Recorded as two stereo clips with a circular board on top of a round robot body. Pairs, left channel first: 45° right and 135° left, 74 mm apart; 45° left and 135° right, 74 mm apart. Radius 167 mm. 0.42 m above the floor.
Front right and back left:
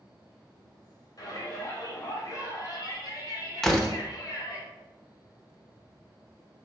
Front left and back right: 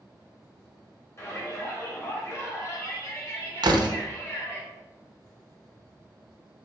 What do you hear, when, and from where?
1.2 s a shout: 5° right, 3 m
3.6 s a door slam: 130° right, 1.2 m